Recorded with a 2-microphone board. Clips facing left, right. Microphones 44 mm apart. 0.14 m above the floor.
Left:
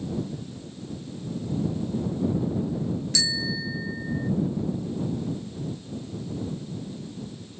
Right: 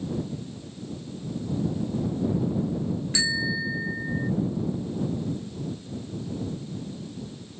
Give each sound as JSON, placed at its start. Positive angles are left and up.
{"t": 3.1, "sound": "a bicycle bell", "side_deg": -20}